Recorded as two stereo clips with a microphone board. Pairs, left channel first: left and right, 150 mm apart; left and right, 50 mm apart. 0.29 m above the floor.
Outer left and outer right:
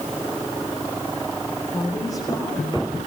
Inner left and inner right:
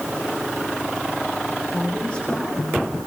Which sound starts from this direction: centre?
A woman speaking, at 1.7 s.